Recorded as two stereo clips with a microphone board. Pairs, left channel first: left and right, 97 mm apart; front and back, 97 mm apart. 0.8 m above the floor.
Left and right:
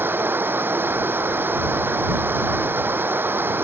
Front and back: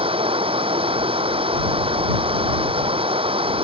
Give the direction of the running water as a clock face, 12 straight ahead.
5 o'clock.